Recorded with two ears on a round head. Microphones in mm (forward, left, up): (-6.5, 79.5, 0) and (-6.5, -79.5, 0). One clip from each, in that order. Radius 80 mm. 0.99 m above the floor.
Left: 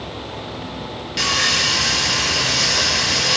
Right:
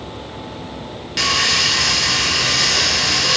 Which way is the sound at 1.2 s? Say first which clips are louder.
Right 2 dB; 10° right (ahead or behind).